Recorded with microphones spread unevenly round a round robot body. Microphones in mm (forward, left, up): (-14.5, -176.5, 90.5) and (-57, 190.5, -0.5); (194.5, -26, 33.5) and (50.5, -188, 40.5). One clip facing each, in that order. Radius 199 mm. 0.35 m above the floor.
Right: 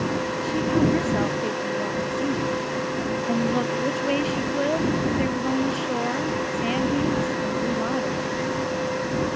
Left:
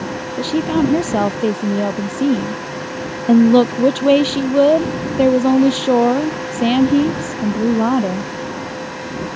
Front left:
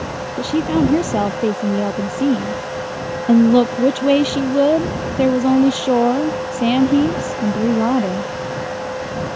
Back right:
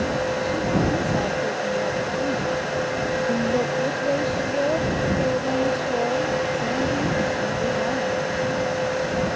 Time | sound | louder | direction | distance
0.4 | a woman speaking | left 7 dB, front left 12 dB | 75° left | ?